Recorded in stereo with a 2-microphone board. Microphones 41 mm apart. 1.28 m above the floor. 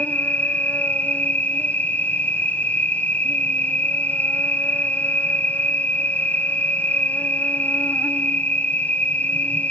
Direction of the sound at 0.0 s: 45° left (ahead or behind).